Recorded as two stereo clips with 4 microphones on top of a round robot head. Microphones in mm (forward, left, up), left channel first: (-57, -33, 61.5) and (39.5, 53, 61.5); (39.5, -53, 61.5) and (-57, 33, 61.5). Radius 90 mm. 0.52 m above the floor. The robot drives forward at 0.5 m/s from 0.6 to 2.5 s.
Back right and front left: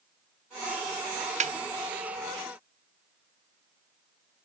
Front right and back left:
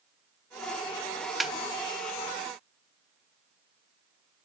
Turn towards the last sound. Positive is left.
turn(degrees=95)